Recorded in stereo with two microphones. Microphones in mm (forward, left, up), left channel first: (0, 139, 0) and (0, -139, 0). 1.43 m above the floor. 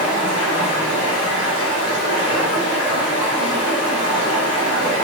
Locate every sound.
0.0 s running water: 40° right (ahead or behind), 1.2 m